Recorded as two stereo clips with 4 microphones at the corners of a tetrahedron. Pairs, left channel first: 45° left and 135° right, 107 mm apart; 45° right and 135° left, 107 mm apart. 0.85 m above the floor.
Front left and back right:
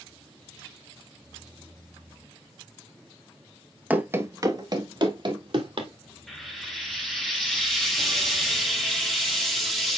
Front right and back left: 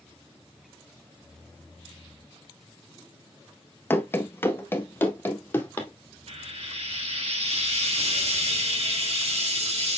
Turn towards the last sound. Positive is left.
turn(degrees=135)